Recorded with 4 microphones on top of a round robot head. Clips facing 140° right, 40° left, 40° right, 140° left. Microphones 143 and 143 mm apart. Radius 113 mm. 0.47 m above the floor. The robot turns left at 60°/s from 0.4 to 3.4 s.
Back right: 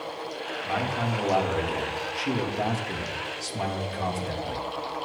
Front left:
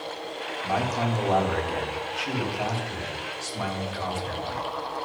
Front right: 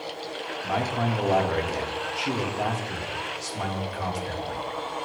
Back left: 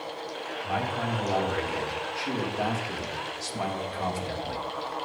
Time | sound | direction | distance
0.6 | a man speaking | 10° right | 1.3 m